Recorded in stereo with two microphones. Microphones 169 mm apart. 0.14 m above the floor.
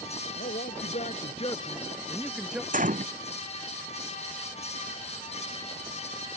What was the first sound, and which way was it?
A man speaking, 65° left (ahead or behind).